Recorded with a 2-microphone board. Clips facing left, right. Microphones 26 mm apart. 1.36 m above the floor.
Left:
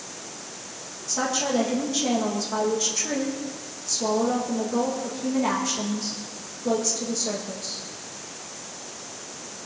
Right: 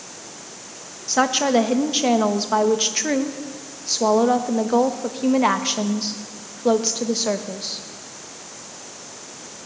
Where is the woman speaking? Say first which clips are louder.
Right 7 dB; 50° right (ahead or behind), 1.3 m.